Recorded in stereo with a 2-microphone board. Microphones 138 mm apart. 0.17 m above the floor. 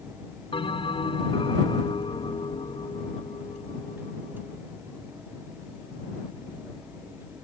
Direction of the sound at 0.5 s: 40° left (ahead or behind).